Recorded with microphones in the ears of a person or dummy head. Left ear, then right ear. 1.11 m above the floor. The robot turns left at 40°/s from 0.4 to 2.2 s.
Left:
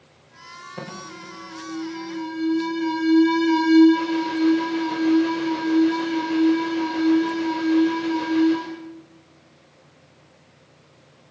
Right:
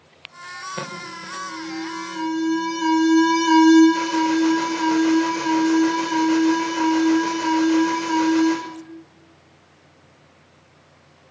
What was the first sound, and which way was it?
An alarm, 70° right.